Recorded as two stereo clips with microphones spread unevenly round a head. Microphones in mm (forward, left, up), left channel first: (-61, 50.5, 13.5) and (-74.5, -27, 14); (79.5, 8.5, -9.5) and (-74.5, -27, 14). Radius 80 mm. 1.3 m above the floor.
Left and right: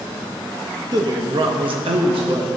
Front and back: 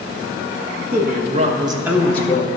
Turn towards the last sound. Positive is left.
turn(degrees=-45)